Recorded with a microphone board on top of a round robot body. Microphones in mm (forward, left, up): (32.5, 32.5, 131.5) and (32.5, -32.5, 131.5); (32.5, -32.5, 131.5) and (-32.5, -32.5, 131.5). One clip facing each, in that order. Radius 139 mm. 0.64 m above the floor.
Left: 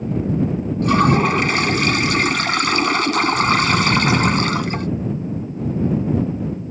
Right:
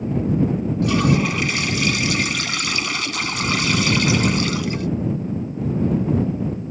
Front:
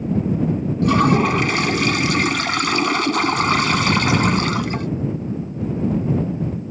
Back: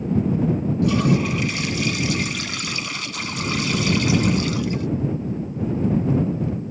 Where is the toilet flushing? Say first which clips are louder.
Left 4 dB, front 5 dB; 45° left.